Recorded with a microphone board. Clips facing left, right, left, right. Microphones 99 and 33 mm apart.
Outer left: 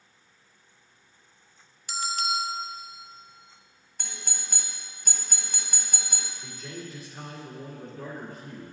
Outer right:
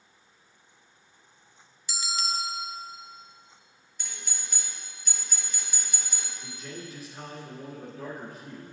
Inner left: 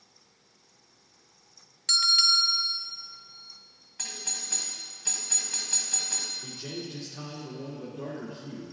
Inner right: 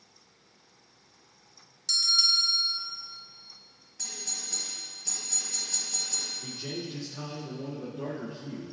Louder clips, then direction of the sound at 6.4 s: Even, inner right 1 dB; 5° right (ahead or behind).